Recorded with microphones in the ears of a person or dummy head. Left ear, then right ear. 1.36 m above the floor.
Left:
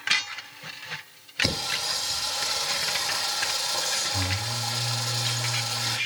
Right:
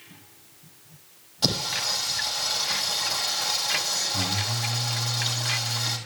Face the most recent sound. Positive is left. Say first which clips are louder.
# right 1 dB
turn(degrees=-75)  # may be behind; listen again after turning